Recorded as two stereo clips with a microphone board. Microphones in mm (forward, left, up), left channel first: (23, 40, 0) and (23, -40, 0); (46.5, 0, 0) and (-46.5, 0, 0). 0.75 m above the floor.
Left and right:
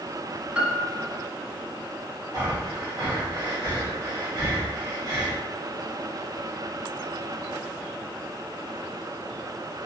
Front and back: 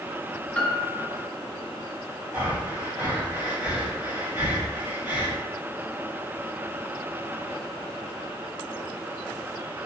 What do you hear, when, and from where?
0.6 s a piano: 45° right, 1.1 m
2.3 s breathing: 115° right, 3.5 m